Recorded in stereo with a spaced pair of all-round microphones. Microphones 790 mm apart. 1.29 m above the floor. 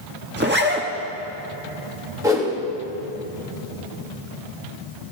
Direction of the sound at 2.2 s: 5° right (ahead or behind).